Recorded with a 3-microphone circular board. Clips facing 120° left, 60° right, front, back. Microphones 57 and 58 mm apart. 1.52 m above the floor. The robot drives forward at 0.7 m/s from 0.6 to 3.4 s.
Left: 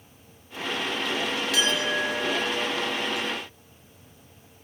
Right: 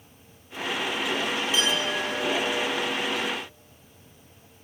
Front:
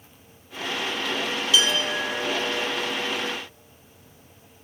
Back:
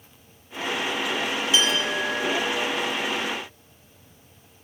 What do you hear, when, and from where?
1.5 s a clink: 120° left, 3 m; by 2.6 s 135° left, 3.5 m